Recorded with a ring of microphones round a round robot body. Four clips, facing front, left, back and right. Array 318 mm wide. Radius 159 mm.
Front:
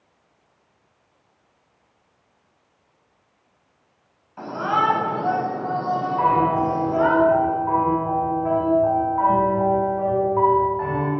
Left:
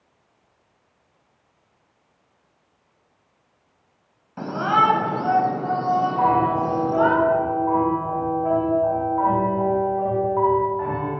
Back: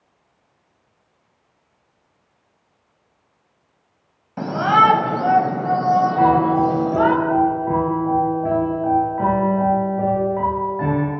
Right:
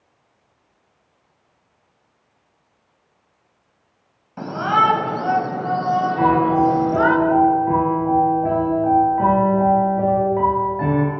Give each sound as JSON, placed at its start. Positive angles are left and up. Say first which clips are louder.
{"t": 4.4, "sound": "a shout", "louder": "right 1 dB, back 7 dB", "azimuth_deg": 175, "distance_m": 4.5}
{"t": 6.2, "sound": "a piano", "louder": "right 6 dB, back 3 dB", "azimuth_deg": -130, "distance_m": 8.0}